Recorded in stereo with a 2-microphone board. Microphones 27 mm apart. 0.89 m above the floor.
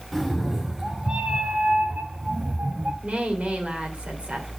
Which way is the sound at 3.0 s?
50° right (ahead or behind).